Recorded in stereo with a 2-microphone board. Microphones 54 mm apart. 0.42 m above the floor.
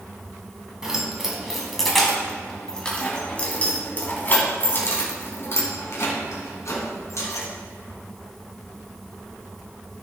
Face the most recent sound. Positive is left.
turn(degrees=65)  # may be behind; listen again after turning